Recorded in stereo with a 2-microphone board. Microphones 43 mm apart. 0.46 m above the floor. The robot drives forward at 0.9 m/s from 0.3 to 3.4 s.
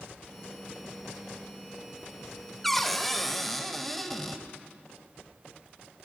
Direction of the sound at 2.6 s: 5° left (ahead or behind).